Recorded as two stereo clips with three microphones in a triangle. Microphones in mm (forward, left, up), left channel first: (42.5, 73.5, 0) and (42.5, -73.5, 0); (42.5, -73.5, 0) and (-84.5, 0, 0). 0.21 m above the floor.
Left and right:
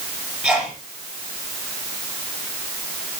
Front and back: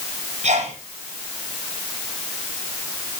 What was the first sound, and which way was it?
A sneeze, 175° right.